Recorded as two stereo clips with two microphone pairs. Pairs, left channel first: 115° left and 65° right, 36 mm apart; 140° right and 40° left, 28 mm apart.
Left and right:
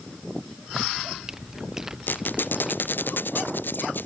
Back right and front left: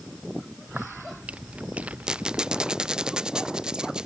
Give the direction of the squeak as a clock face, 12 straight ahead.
9 o'clock.